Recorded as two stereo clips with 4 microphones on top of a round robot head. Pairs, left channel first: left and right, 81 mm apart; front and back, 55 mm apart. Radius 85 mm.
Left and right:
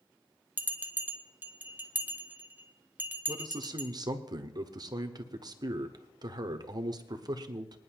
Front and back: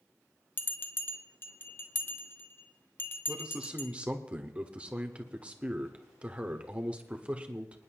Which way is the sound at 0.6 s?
30° right.